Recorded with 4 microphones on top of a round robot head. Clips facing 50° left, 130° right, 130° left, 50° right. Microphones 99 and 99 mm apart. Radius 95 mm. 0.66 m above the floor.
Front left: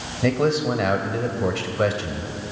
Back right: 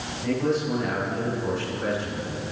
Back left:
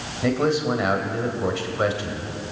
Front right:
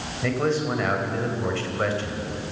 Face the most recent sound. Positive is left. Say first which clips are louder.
# front left 4 dB, back left 3 dB
turn(degrees=50)